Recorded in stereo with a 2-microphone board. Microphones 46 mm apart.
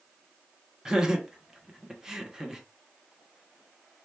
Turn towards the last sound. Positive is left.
turn(degrees=-15)  # may be behind; listen again after turning